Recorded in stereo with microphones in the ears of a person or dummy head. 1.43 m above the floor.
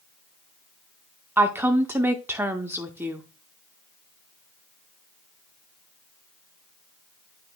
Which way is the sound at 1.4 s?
15° right (ahead or behind).